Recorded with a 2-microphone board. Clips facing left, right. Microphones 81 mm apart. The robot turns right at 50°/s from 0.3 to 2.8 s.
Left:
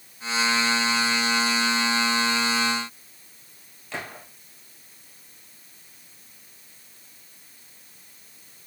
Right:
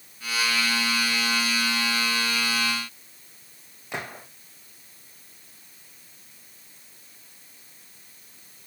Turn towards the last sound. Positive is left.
turn(degrees=-20)  # may be behind; listen again after turning